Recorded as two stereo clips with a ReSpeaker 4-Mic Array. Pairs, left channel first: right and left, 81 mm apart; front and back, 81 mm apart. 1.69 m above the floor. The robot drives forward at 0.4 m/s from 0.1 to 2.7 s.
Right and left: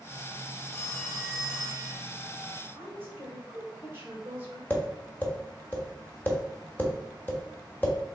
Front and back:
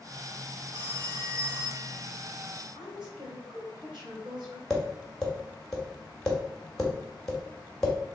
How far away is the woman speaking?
About 1.8 m.